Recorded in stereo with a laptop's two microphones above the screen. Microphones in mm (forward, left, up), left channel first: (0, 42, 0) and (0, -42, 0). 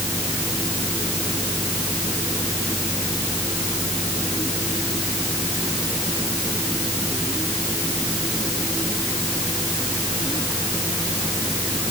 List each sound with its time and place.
Only background noise.